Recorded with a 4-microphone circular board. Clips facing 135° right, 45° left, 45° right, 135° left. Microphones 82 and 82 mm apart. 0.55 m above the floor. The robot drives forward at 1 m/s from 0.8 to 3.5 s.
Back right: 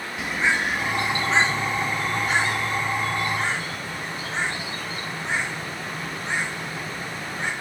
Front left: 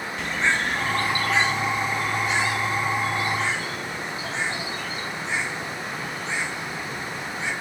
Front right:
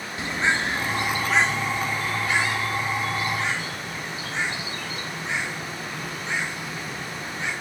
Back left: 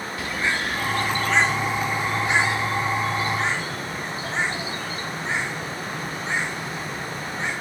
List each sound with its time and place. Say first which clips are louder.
0.2 s a bird: back right 1 dB, front right 2 dB; 60° right, 1.0 m; by 7.5 s 170° right, 2.5 m